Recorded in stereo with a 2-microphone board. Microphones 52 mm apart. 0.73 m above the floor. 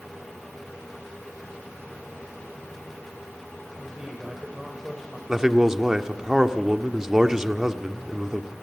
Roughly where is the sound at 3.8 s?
Centre.